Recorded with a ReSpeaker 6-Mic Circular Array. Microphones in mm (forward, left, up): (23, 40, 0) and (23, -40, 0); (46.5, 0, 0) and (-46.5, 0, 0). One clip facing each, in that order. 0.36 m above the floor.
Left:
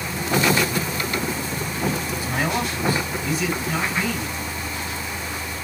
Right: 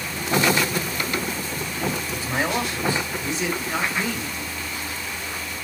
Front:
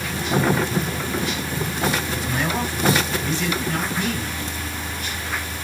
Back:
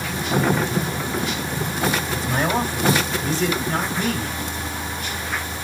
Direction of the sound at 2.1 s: 145° right.